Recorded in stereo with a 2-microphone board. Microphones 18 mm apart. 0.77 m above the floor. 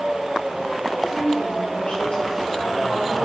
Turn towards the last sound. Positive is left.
turn(degrees=80)